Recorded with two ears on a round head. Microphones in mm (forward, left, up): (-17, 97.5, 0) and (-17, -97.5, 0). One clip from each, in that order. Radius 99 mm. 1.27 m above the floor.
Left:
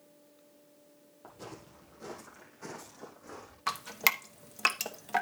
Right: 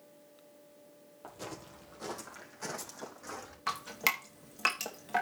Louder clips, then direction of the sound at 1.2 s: Right 3 dB; 25° right (ahead or behind).